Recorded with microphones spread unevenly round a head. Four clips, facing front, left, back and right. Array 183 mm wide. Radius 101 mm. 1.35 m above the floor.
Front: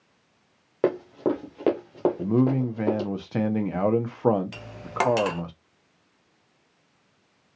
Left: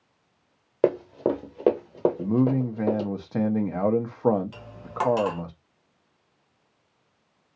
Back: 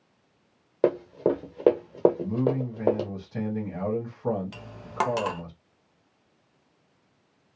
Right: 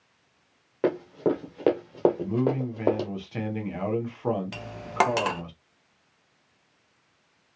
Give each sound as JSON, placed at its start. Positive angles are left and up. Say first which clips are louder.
{"t": 0.8, "sound": "running footsteps", "louder": "left 2 dB, back 1 dB", "azimuth_deg": 80, "distance_m": 1.6}
{"t": 2.2, "sound": "a man speaking", "louder": "left 3 dB, front 4 dB", "azimuth_deg": 35, "distance_m": 0.9}
{"t": 4.5, "sound": "cutlery clinking", "louder": "right 6 dB, front 1 dB", "azimuth_deg": -65, "distance_m": 0.5}